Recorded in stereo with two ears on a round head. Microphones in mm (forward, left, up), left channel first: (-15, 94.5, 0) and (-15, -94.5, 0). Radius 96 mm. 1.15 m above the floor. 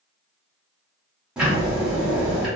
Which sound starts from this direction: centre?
Ticking, at 1.4 s.